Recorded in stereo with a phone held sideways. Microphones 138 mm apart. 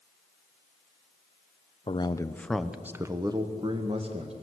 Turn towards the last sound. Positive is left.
turn(degrees=-45)  # may be behind; listen again after turning